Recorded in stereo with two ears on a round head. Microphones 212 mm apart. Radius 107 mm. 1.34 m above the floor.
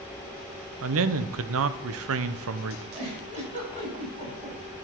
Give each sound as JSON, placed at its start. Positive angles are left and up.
{"t": 0.8, "sound": "a man speaking", "side_deg": -60, "distance_m": 0.6}
{"t": 2.9, "sound": "a giggle", "side_deg": -30, "distance_m": 5.0}